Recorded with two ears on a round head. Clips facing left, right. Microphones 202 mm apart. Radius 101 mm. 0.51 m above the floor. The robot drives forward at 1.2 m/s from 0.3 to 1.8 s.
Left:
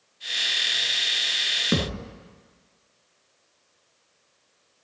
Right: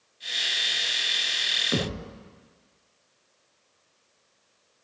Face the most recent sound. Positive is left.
turn(degrees=55)  # may be behind; listen again after turning